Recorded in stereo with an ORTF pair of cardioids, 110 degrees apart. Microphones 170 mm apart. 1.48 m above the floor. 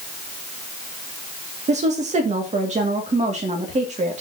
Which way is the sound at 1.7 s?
40° right.